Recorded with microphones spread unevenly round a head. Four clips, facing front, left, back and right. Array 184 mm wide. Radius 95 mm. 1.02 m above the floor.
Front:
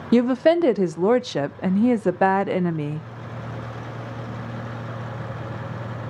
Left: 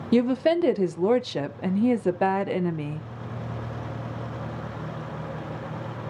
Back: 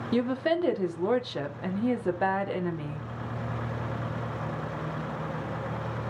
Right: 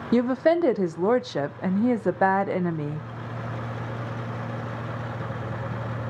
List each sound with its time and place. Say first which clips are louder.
0.1 s a woman speaking: even, front 9 dB; 5° left, 0.7 m